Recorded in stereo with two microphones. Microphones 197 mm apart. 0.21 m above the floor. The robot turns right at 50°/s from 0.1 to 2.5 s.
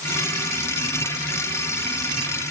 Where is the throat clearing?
No throat clearing in this recording.